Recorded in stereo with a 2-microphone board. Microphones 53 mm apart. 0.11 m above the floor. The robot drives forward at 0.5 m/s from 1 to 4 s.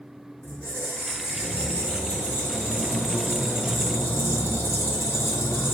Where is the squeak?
20° left (ahead or behind), 1.7 m; by 5.8 s 55° left (ahead or behind), 0.7 m.